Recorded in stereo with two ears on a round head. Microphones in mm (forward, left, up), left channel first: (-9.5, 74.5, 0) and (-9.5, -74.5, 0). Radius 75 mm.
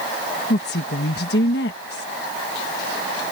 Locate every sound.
0.5 s a woman speaking: 70° left (ahead or behind)